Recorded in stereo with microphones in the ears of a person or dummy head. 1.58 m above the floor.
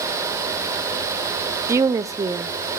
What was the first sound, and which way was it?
A woman speaking, 20° right (ahead or behind).